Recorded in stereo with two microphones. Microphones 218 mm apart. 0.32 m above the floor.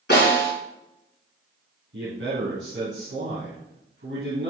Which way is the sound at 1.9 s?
60° right (ahead or behind).